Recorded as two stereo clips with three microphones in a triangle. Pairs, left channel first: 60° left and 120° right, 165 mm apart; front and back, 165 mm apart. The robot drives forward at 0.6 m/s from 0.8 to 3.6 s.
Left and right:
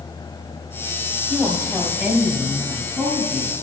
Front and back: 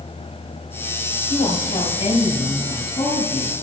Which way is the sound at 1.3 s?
35° right.